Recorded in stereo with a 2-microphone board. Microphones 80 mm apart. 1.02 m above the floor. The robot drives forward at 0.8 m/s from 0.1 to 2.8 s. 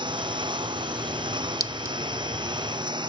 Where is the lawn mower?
75° right (ahead or behind); by 3.1 s 70° right (ahead or behind).